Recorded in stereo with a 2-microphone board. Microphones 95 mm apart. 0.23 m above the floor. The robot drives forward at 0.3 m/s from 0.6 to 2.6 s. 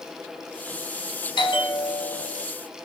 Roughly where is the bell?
Left.